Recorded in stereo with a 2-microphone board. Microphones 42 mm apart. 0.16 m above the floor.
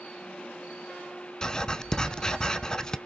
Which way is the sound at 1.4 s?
15° left (ahead or behind).